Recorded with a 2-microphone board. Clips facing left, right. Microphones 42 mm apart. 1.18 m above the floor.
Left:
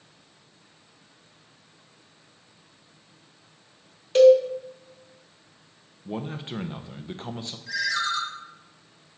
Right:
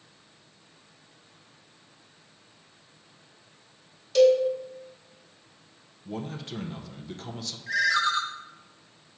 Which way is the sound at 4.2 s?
30° left (ahead or behind).